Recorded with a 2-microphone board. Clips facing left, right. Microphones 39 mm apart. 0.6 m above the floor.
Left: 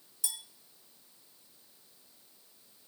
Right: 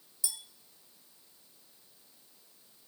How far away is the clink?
About 0.8 m.